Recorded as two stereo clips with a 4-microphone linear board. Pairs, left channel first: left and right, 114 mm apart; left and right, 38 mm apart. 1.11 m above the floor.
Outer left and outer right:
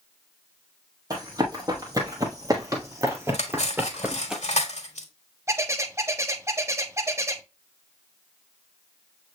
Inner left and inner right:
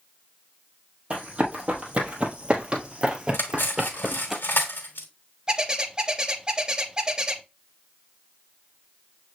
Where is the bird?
25° right (ahead or behind), 0.6 m.